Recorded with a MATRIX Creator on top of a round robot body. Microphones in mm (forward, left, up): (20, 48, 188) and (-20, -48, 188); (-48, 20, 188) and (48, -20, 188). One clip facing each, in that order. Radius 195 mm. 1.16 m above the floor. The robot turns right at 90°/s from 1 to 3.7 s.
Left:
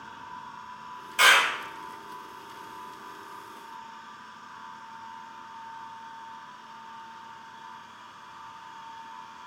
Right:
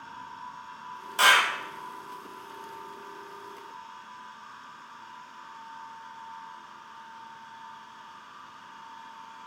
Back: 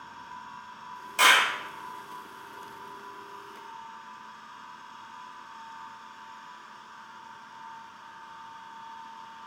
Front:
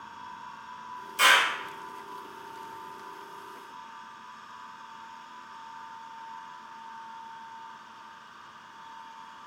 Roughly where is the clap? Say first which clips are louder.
Even, back 1 dB; behind.